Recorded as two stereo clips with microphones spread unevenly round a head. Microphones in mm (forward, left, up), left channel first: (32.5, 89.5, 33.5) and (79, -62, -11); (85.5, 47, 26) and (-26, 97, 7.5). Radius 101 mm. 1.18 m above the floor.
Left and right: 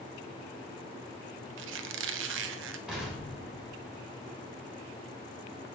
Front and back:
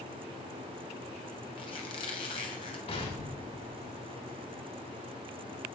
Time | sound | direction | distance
1.6 | a squeak | 85° right | 0.6 m
2.9 | an explosion | 10° left | 5 m